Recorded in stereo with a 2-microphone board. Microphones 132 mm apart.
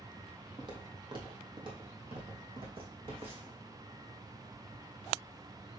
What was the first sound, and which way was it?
Footsteps, 35° right (ahead or behind).